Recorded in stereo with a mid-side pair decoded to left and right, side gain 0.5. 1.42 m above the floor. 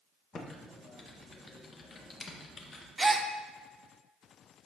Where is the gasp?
15° right, 0.9 m.